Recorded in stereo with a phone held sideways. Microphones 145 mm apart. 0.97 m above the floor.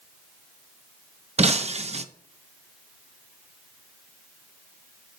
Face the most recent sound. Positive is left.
turn(degrees=-45)  # may be behind; listen again after turning